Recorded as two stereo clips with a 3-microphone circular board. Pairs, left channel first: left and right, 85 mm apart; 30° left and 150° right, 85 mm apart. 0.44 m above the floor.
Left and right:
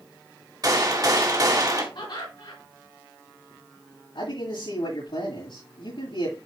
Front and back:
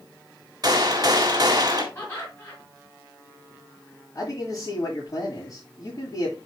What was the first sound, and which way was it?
A gunshot, 120° right.